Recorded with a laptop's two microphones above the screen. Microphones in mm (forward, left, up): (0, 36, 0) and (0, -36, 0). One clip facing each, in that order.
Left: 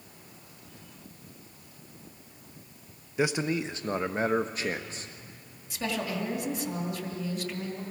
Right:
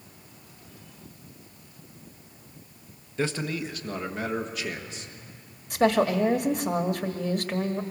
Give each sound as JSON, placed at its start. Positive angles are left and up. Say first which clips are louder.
{"t": 3.2, "sound": "a man speaking", "louder": "left 1 dB", "side_deg": 10, "distance_m": 0.9}
{"t": 5.7, "sound": "a woman speaking", "louder": "right 11 dB", "side_deg": -55, "distance_m": 1.5}